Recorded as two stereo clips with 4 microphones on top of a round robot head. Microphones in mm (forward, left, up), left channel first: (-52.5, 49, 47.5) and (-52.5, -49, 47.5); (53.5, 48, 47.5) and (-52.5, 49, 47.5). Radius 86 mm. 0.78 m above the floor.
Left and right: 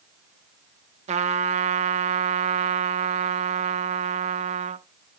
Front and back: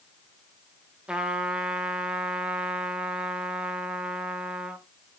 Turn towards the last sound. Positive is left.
turn(degrees=-95)